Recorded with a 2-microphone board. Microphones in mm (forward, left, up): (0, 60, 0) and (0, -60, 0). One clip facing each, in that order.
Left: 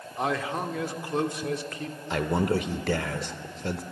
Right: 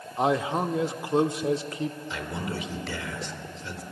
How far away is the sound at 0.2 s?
About 0.8 m.